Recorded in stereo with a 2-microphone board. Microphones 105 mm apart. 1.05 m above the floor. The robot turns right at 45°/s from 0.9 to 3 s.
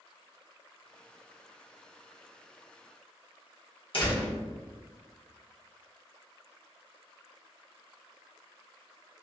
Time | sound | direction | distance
3.9 | a door slam | 60° left (ahead or behind) | 1.0 m